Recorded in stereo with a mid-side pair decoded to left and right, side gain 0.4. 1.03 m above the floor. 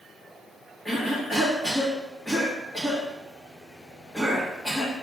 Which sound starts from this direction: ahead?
A cough, at 0.8 s.